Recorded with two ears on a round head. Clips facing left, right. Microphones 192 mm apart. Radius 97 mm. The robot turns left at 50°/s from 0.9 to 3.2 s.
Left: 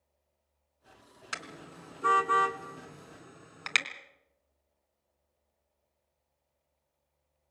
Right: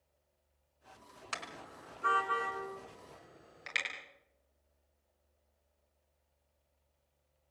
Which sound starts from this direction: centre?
A car horn, at 1.3 s.